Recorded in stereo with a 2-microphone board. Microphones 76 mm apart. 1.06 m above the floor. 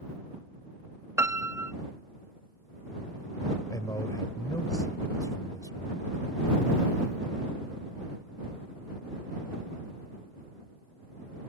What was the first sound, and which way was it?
A piano, 40° right (ahead or behind).